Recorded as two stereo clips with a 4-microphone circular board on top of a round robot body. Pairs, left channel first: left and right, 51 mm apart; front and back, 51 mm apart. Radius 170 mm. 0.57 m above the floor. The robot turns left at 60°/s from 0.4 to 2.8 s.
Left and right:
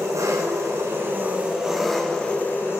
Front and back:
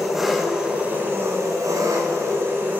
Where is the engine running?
95° right, 3.5 m; by 2.8 s 120° left, 3.5 m.